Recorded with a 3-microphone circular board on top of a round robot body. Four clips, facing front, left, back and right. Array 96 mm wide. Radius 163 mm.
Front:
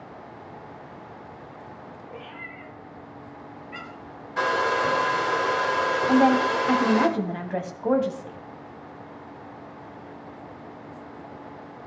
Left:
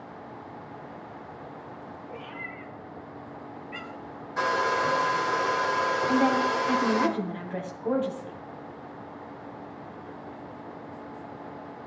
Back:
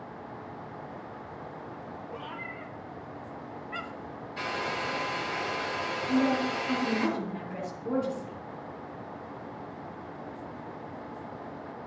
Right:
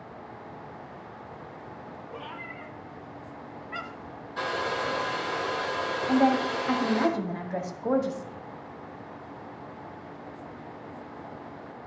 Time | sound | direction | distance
2.1 | a cat meowing | 125° right | 3 m
4.4 | a hair dryer | 15° left | 2 m
6.1 | a woman speaking | 20° right | 2.5 m